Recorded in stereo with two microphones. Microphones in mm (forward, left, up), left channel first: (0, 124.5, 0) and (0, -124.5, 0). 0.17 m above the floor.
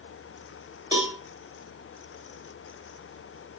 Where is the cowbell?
20° right (ahead or behind), 1.7 m.